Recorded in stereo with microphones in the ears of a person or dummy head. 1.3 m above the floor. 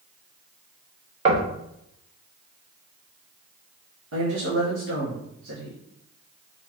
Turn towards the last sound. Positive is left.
turn(degrees=-70)  # may be behind; listen again after turning